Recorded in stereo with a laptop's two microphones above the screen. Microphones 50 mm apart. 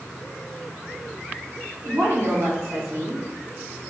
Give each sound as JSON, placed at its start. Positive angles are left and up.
{"t": 1.9, "sound": "a woman speaking", "side_deg": -65, "distance_m": 1.4}